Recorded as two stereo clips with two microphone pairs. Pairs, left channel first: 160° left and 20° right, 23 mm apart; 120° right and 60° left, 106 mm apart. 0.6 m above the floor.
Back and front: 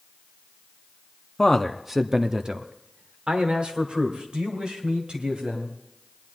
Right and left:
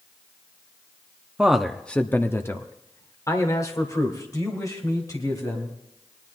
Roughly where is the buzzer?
No buzzer in this recording.